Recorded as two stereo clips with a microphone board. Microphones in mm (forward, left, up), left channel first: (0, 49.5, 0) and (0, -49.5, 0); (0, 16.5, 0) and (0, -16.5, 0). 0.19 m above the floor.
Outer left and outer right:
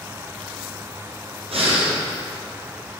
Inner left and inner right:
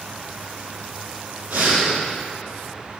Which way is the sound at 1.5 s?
75° right (ahead or behind).